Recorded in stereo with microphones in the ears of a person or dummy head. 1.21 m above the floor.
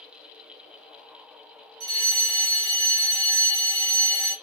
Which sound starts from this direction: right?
A fire alarm, at 1.8 s.